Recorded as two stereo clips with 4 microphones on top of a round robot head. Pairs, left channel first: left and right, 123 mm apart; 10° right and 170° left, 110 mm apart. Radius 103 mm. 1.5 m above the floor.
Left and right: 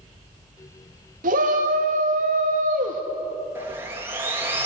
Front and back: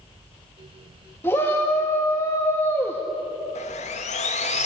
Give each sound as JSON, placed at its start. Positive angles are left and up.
{"t": 1.2, "sound": "a shout", "azimuth_deg": -80, "distance_m": 1.9}
{"t": 3.5, "sound": "sawing", "azimuth_deg": -15, "distance_m": 2.5}